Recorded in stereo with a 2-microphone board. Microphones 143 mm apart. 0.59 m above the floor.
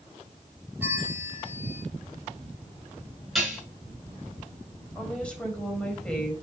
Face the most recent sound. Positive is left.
turn(degrees=10)  # may be behind; listen again after turning